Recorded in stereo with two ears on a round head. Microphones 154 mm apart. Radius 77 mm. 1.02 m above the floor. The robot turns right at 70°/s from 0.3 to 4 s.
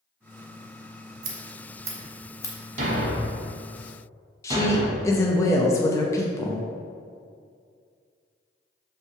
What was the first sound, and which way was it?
Scissors, 55° right (ahead or behind).